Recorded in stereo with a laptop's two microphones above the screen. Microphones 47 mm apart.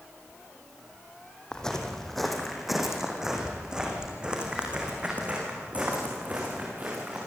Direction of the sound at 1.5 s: 15° left (ahead or behind).